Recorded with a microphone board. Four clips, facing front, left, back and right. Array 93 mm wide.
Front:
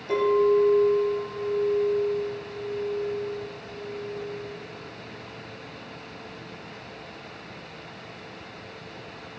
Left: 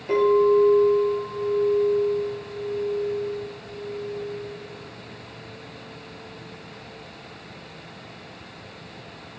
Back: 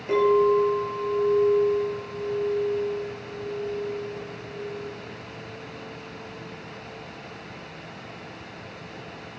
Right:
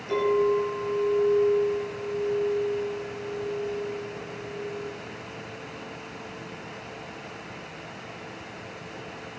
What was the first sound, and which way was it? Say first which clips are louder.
A clink: left 5 dB, back 1 dB; 140° left.